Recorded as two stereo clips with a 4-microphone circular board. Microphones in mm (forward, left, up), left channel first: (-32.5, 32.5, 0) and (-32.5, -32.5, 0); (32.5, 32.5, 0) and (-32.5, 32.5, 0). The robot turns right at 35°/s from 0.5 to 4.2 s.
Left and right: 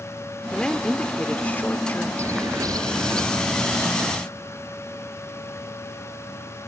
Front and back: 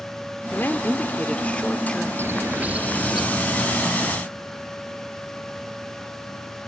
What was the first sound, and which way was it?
A woman speaking, 20° left.